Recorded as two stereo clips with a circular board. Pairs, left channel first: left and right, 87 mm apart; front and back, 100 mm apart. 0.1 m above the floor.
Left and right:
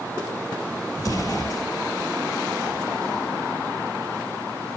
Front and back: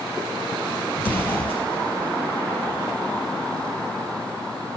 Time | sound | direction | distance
1.0 | an explosion | 65° left | 1.3 m